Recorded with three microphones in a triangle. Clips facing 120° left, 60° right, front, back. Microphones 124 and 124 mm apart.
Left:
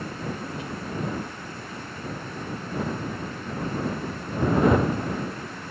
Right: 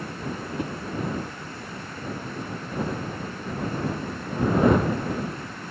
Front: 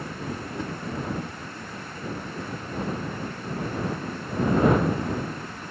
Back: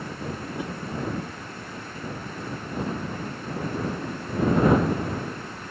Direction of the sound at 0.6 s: 100° right.